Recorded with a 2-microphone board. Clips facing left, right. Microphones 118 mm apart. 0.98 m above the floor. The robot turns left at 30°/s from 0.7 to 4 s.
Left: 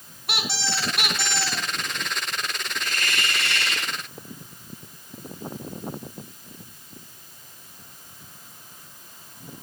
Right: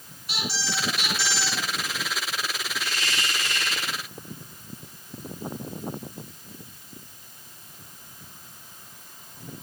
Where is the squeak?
65° left (ahead or behind), 1.8 m; by 1.7 s 55° left (ahead or behind), 1.8 m.